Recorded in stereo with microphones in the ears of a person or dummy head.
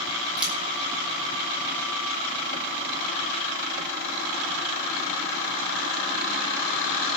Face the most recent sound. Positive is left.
turn(degrees=-5)  # may be behind; listen again after turning